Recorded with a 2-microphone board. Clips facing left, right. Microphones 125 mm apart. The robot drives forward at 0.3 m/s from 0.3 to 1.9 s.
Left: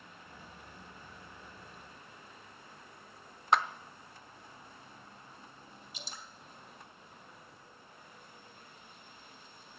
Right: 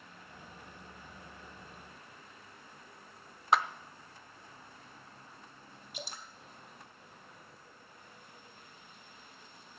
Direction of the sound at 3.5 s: Centre (ahead or behind).